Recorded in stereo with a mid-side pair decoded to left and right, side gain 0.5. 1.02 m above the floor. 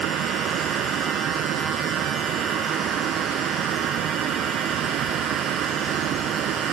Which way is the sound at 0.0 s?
65° right.